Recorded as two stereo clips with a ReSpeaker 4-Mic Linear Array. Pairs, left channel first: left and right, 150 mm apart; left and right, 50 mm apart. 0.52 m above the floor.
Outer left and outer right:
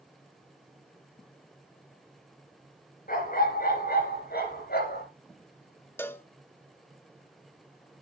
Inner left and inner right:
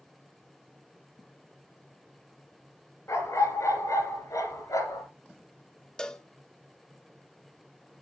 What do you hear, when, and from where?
3.1 s a dog barking: 60° left (ahead or behind), 3.5 m; by 5.0 s 80° left, 3.5 m
6.0 s a cowbell: 15° left (ahead or behind), 0.8 m